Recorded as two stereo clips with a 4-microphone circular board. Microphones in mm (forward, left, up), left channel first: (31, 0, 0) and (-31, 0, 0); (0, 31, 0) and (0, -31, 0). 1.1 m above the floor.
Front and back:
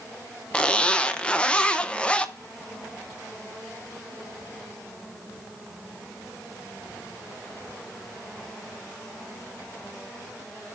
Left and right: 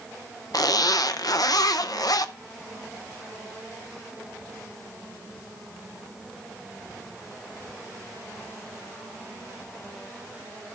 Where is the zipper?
75° left, 0.6 m.